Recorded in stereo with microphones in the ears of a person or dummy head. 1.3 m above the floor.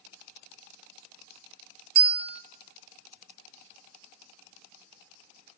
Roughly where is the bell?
Right.